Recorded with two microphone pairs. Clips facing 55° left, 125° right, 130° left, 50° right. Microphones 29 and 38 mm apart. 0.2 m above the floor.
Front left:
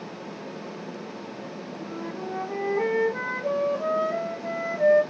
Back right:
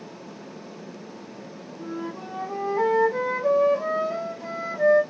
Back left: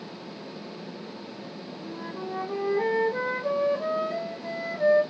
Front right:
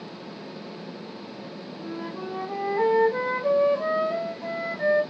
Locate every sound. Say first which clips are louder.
1.8 s a flute: back right 2 dB, front right 3 dB; 85° right, 4 m